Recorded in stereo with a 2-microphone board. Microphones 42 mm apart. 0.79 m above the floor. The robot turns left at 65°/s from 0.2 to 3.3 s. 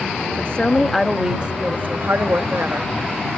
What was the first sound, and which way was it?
A woman speaking, 40° left.